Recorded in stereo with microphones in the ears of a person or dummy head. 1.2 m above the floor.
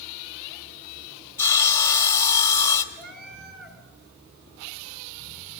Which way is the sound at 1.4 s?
15° left (ahead or behind).